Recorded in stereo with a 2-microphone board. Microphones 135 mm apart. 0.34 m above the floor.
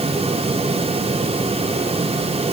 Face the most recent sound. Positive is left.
No sound to turn to.